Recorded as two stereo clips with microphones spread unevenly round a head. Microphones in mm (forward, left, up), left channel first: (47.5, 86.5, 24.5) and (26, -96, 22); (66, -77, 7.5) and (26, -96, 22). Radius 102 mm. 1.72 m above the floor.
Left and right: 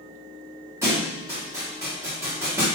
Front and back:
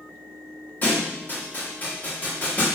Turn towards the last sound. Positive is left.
turn(degrees=-25)